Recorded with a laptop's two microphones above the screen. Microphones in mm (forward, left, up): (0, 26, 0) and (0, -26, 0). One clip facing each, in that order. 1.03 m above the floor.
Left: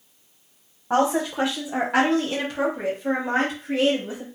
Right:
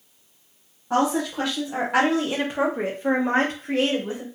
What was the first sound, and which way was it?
A woman speaking, 30° left (ahead or behind).